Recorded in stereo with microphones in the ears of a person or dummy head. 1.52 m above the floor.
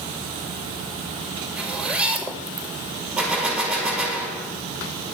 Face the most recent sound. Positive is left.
turn(degrees=-5)  # may be behind; listen again after turning